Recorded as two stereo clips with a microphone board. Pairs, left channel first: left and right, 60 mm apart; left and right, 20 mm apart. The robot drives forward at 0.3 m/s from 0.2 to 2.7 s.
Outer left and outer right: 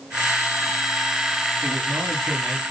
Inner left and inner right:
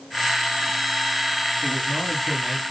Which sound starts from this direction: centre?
A man speaking, at 1.6 s.